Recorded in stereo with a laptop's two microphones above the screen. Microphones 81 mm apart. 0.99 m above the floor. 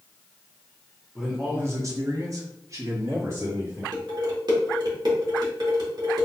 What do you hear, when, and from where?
1.1 s a man speaking: 5° right (ahead or behind), 0.9 m; by 3.8 s 35° right (ahead or behind), 3 m
3.9 s dishes clattering: 55° right (ahead or behind), 1.6 m